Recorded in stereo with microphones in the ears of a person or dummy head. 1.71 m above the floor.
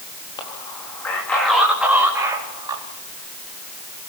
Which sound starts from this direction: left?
A man speaking, at 0.4 s.